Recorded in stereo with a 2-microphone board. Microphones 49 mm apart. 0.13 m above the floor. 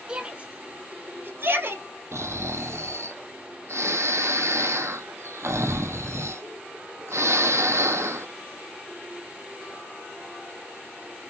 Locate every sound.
0.1 s a shout: 20° right (ahead or behind), 1.2 m; by 1.8 s 55° right (ahead or behind), 1.8 m
2.1 s snoring: 75° right (ahead or behind), 0.7 m